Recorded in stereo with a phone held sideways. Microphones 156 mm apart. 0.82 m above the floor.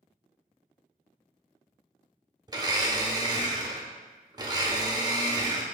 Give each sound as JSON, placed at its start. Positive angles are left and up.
{"t": 2.5, "sound": "a blender", "side_deg": -25, "distance_m": 0.5}